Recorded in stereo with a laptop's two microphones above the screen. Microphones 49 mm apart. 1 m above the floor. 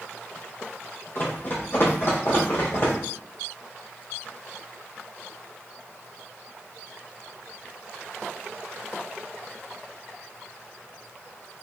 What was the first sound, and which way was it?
Running footsteps, 45° left (ahead or behind).